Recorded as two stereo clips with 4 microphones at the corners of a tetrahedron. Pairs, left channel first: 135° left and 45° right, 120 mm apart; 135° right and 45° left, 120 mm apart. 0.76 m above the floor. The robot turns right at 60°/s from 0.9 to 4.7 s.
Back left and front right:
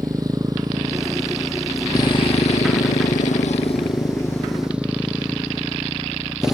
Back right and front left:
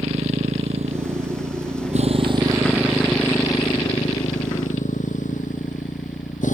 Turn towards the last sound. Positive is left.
turn(degrees=-130)